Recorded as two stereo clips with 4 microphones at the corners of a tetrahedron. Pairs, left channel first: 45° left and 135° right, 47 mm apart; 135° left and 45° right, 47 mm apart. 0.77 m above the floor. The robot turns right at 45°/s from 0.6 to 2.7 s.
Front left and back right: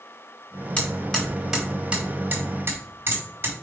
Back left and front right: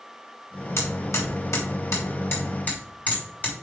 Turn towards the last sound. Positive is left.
turn(degrees=-170)